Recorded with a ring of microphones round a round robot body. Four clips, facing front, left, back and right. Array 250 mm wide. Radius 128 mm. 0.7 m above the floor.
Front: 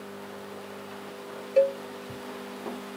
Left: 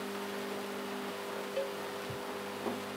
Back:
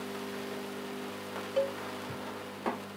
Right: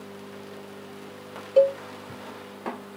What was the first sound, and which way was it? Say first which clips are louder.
A cowbell: right 20 dB, front 9 dB; 60° right.